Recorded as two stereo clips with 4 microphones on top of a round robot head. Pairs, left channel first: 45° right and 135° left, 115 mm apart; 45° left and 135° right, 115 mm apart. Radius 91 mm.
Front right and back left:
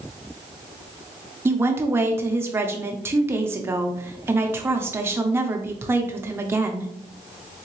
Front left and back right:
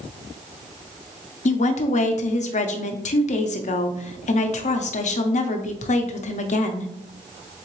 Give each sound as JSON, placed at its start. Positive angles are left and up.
{"t": 1.4, "sound": "a woman speaking", "azimuth_deg": 65, "distance_m": 0.7}